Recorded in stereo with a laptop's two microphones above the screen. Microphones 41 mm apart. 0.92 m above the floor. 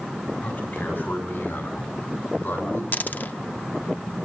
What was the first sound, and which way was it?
A man speaking, 55° left (ahead or behind).